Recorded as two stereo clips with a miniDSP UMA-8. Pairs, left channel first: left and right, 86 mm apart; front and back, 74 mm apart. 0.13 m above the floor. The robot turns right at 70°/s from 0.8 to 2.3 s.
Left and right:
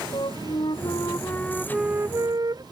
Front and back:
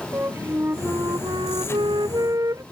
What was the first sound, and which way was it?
A flute, 120° left.